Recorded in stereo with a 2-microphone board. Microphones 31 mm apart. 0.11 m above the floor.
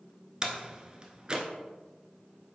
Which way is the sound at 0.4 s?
30° right (ahead or behind).